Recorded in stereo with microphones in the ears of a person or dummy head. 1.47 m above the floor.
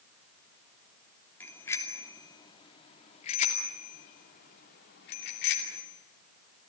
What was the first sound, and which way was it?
A bicycle bell, 10° left (ahead or behind).